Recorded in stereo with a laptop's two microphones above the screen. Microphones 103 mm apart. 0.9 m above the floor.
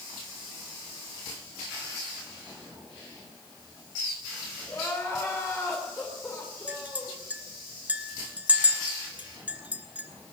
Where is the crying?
25° left (ahead or behind), 3.5 m.